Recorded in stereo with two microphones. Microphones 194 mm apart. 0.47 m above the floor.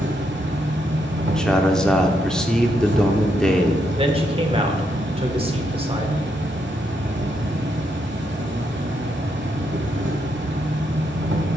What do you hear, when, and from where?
0.0 s an insect: 75° right (ahead or behind), 1.1 m
1.3 s a man speaking: 5° left (ahead or behind), 0.7 m
4.0 s a man speaking: 30° right (ahead or behind), 1.2 m